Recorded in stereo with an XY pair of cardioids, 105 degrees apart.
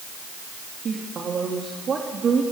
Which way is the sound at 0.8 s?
45° right.